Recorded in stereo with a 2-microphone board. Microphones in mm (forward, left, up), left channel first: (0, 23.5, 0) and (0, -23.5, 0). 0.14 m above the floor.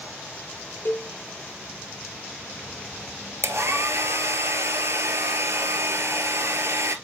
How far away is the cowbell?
About 0.7 m.